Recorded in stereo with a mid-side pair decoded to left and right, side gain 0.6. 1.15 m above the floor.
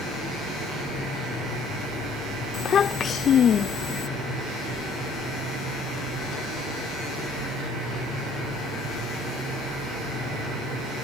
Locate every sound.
2.5 s a child speaking: 45° left